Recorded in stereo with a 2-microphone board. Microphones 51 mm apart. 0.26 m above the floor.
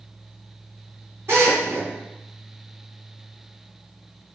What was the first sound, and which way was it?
A drill, 60° right (ahead or behind).